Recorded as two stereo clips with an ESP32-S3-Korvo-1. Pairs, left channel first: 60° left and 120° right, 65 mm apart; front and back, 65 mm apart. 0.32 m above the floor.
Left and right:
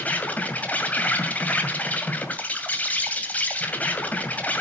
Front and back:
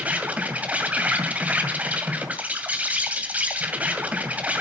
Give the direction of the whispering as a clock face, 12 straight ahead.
I don't hear whispering.